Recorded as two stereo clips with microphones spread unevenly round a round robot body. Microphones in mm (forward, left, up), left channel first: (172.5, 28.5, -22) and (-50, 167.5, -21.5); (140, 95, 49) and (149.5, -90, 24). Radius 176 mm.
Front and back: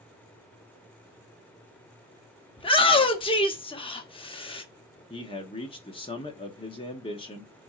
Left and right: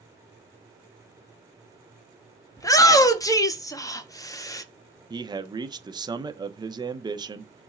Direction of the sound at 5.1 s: 85° right.